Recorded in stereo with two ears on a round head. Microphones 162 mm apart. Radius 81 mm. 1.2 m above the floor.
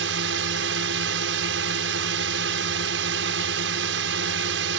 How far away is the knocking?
No knocking in this recording.